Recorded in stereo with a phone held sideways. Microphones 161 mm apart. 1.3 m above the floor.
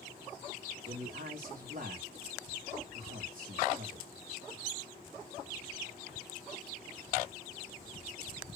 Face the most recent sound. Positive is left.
turn(degrees=-55)  # may be behind; listen again after turning